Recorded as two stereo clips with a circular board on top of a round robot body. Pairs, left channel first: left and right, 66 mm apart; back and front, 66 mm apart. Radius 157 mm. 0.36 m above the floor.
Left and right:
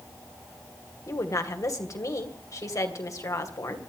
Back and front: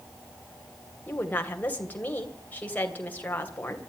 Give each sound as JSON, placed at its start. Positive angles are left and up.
{"t": 1.1, "sound": "a woman speaking", "azimuth_deg": 120, "distance_m": 3.0}